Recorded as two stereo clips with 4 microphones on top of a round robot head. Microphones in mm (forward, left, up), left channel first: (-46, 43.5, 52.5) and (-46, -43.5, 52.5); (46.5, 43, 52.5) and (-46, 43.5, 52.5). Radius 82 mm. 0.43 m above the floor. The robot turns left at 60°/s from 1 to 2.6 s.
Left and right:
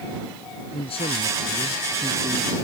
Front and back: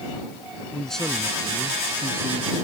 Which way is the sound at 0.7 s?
85° left.